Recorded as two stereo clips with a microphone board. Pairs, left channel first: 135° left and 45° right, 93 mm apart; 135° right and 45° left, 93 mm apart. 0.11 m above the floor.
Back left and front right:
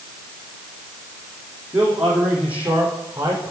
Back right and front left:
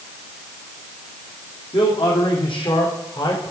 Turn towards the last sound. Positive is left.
turn(degrees=-105)